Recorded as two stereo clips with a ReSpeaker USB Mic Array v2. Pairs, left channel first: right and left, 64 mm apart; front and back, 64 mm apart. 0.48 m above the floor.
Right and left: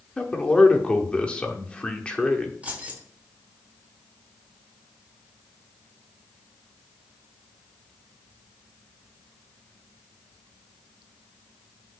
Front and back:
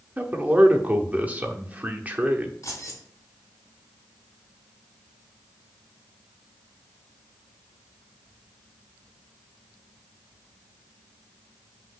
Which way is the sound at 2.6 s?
25° left.